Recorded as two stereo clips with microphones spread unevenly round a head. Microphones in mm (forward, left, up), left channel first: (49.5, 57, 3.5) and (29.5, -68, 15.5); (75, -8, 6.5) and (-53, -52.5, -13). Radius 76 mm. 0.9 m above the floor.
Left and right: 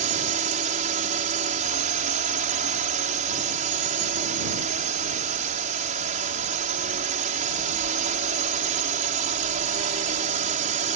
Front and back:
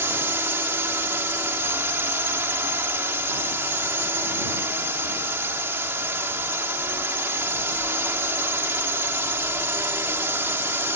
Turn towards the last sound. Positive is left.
turn(degrees=-90)